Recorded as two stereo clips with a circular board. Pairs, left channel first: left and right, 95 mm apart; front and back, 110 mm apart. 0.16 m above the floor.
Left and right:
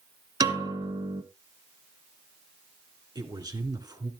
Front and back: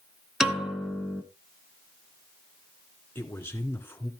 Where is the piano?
95° right, 1.5 m.